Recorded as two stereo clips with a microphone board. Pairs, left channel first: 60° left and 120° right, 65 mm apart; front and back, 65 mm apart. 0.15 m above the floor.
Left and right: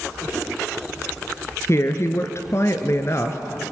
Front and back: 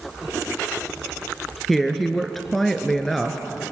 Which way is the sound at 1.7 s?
85° left.